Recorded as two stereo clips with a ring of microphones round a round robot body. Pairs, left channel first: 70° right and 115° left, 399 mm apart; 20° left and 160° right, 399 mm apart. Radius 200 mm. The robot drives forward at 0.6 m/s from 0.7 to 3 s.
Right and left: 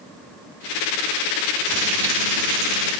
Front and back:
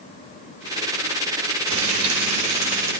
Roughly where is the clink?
I don't hear a clink.